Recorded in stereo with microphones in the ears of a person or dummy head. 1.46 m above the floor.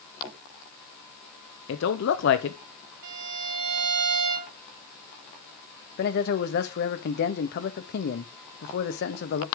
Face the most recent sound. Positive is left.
turn(degrees=55)  # may be behind; listen again after turning